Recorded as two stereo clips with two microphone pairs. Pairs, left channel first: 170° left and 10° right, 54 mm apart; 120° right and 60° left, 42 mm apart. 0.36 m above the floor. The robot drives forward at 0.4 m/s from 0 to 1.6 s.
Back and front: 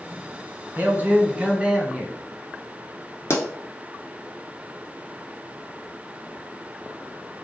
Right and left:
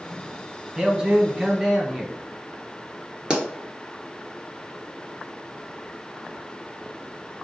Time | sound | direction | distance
0.8 | a man speaking | 5° left | 1.1 m
3.3 | a pop | 130° left | 0.8 m